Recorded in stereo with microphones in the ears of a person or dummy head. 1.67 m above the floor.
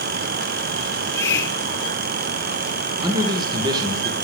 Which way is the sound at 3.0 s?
15° right (ahead or behind).